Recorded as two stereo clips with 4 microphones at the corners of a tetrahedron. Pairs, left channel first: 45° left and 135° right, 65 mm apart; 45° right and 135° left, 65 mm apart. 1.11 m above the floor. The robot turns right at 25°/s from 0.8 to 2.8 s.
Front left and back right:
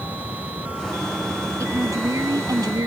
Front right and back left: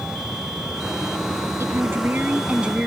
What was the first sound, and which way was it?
A woman speaking, 175° right.